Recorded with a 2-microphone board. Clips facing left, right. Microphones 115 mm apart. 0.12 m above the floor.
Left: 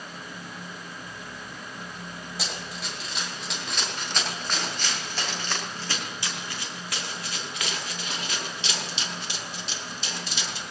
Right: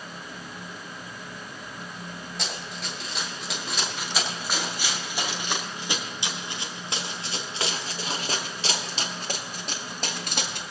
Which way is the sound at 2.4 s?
5° left (ahead or behind).